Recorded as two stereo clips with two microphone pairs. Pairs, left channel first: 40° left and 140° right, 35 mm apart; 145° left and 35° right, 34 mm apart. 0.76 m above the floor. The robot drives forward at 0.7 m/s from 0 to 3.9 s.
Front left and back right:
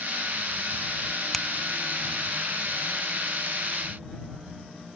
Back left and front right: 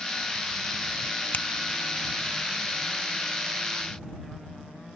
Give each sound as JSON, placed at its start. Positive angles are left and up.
{"t": 1.3, "sound": "a finger snap", "azimuth_deg": 125}